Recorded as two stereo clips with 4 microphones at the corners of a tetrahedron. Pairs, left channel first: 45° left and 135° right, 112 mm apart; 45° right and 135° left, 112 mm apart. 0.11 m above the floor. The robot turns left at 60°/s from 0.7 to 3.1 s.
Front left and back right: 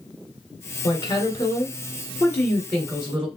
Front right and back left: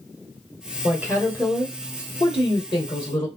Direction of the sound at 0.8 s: 70° left.